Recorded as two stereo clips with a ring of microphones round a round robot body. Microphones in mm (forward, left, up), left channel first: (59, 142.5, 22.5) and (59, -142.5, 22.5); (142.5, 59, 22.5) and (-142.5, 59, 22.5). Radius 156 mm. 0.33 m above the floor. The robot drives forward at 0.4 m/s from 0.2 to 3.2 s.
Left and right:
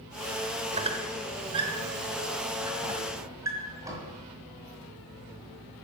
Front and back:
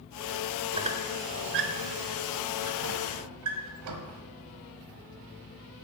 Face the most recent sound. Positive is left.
turn(degrees=-170)